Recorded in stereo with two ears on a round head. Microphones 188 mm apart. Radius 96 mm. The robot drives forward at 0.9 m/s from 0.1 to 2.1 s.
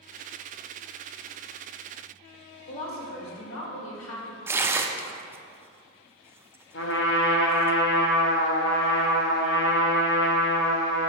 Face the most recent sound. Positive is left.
turn(degrees=65)  # may be behind; listen again after turning